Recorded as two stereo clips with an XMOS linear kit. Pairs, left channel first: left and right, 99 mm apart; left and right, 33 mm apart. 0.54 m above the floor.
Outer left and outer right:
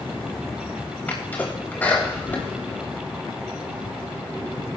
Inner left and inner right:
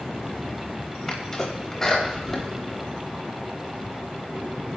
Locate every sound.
1.1 s a sneeze: 15° left (ahead or behind), 3 m